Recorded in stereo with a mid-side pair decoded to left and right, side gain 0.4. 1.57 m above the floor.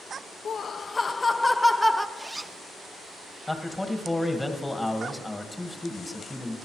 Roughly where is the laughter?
Ahead left.